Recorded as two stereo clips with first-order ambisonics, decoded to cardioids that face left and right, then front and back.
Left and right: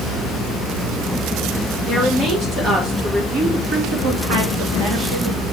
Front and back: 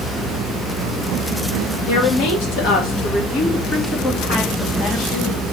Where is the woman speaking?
20° right, 2 m; by 5.4 s 65° right, 2.5 m.